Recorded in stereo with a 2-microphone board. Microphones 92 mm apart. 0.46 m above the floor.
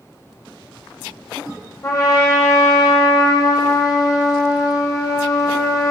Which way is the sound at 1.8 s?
40° left (ahead or behind).